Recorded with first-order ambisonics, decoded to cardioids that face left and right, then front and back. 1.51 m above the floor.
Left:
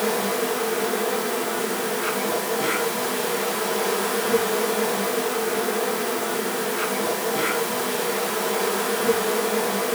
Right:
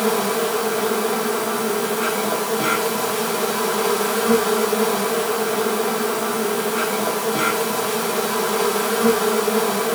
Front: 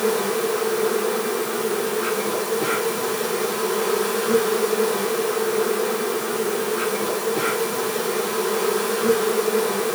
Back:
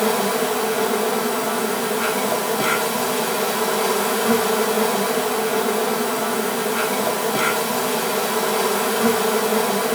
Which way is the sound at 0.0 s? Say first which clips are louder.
Right 3 dB, back 2 dB; 160° right.